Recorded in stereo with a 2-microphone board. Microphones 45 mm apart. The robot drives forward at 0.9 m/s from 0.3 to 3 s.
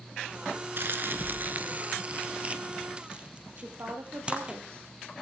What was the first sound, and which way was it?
Crumpling, 55° right (ahead or behind).